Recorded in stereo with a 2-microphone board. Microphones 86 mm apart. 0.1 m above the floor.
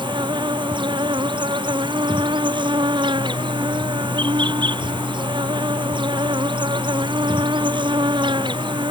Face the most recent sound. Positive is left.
turn(degrees=-70)  # may be behind; listen again after turning